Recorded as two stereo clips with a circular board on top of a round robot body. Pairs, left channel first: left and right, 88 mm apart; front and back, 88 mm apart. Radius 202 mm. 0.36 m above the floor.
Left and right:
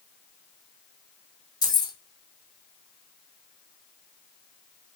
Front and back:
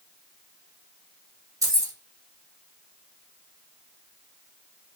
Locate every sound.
1.6 s keys jangling: 130° left, 1.1 m